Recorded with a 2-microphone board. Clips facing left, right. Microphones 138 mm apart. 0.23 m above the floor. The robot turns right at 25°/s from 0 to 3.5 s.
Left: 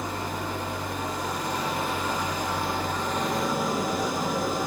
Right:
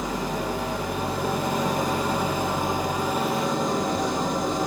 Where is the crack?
No crack in this recording.